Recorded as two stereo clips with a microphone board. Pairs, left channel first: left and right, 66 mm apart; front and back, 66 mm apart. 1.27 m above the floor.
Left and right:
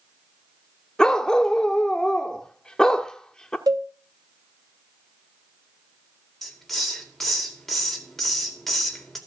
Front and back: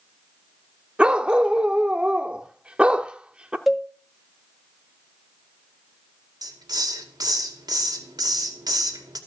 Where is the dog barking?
150° left, 0.9 m.